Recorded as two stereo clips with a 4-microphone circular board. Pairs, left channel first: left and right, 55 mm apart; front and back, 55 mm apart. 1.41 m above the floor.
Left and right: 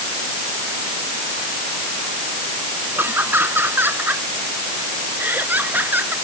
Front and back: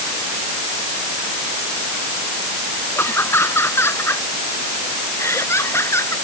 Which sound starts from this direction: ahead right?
Laughter, at 3.0 s.